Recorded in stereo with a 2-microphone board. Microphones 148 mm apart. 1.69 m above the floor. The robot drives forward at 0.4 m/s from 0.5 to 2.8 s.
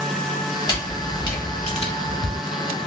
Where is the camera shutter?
30° left (ahead or behind), 1.0 m; by 2.4 s 50° left (ahead or behind), 0.7 m.